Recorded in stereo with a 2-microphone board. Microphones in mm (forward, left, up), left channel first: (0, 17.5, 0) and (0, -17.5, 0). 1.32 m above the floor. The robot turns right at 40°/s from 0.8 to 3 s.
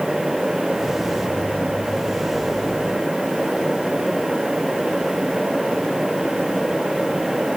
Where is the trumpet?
I don't hear a trumpet.